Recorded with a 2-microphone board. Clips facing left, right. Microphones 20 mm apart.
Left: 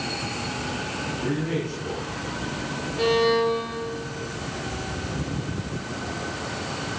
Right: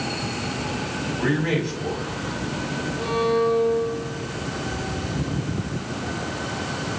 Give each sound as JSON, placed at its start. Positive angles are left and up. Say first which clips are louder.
{"t": 1.2, "sound": "a man speaking", "louder": "right 5 dB", "side_deg": -65, "distance_m": 5.5}
{"t": 3.0, "sound": "a violin", "louder": "left 2 dB", "side_deg": 90, "distance_m": 5.5}